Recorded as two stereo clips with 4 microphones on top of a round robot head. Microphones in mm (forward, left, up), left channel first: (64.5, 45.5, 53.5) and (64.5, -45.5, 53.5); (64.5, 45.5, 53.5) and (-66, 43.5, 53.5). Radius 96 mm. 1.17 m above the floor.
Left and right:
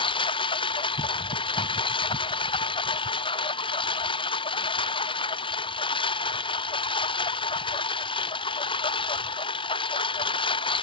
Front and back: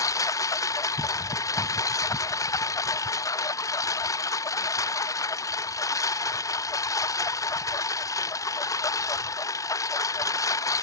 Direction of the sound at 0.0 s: 65° left.